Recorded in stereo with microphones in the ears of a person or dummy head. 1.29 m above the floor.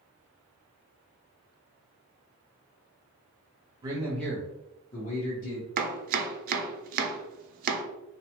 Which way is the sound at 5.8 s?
50° right (ahead or behind).